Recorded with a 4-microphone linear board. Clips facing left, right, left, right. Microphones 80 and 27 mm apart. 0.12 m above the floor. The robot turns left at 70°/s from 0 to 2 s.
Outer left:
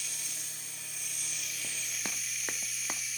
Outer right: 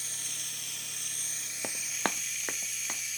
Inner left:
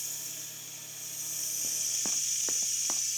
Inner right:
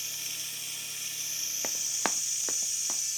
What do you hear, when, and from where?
0.0 s running water: 45° right, 1.5 m; by 3.2 s 175° left, 1.5 m
1.6 s running footsteps: 75° right (ahead or behind), 0.7 m; by 3.0 s 15° left (ahead or behind), 1.1 m